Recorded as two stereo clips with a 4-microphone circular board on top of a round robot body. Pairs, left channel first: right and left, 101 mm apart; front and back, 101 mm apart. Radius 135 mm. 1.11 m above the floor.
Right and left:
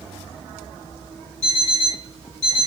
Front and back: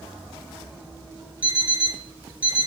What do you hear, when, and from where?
1.4 s an alarm clock: 100° right, 4 m